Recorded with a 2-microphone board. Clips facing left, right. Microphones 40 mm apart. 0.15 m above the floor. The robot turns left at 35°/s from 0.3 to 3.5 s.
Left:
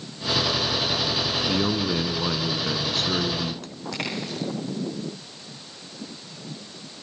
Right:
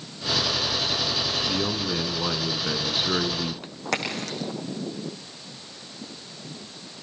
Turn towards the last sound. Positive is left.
turn(degrees=-75)  # may be behind; listen again after turning